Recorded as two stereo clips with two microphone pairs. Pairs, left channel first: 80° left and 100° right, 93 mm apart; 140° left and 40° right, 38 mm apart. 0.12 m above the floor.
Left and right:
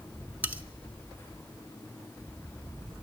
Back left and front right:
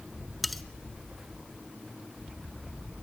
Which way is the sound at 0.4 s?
135° right.